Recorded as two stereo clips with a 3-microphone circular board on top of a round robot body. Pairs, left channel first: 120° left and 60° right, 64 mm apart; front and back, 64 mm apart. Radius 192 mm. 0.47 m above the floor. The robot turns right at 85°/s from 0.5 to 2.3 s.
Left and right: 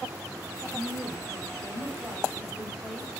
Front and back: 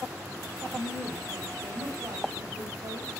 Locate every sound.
0.7 s a woman speaking: 70° left, 4.5 m; by 3.1 s 155° right, 4.5 m